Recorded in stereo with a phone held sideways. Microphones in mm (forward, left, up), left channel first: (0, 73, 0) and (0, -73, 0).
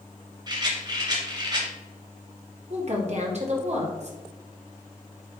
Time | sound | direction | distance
0.5 | a rattle | 30° right (ahead or behind) | 2 m
2.7 | a woman speaking | 50° right (ahead or behind) | 1.8 m